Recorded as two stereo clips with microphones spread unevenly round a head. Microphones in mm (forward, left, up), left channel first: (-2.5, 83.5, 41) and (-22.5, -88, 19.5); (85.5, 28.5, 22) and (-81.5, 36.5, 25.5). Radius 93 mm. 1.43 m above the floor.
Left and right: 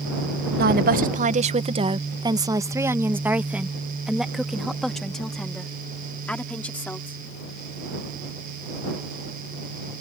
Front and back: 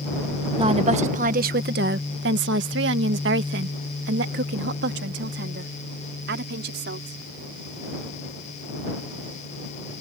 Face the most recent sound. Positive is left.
turn(degrees=165)